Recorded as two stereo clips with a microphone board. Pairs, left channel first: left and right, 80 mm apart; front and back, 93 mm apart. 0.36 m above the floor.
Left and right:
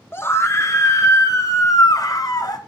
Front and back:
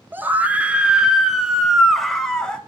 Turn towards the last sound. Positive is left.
turn(degrees=80)